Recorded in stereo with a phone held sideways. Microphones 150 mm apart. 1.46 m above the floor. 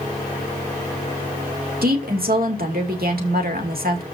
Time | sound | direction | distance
1.8 | a woman speaking | 85° right | 2.5 m